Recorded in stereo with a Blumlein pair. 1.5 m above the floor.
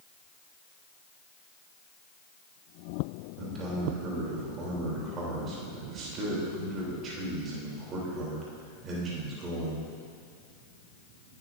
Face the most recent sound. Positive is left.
turn(degrees=-30)